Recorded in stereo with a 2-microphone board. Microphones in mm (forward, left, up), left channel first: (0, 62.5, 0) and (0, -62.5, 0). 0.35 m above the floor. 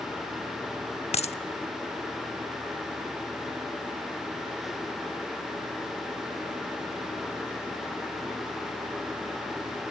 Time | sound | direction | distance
1.1 | a dropped coin | 55° left (ahead or behind) | 0.6 m